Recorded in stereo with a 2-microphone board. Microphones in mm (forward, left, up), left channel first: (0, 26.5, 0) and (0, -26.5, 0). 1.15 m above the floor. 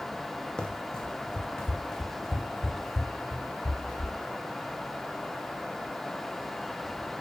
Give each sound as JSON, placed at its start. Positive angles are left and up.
{"t": 0.6, "sound": "running footsteps", "side_deg": 15, "distance_m": 2.5}